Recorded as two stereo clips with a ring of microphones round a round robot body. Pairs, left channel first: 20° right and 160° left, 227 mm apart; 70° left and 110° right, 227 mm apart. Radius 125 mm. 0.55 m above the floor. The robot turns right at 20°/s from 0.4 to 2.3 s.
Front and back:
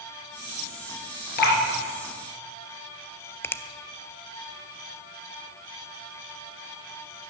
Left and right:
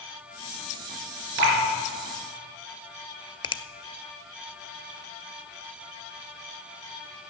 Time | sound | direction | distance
1.4 | dripping | 75° right | 3.5 m
3.4 | a finger snap | 40° left | 0.5 m